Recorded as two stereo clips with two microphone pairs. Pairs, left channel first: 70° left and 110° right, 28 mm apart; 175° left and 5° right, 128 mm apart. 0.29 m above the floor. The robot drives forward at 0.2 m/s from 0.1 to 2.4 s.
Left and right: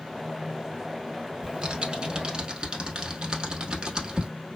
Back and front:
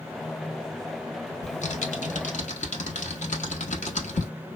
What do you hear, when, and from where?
1.4 s typing on a keyboard: 160° right, 0.6 m; by 4.3 s 165° right, 0.8 m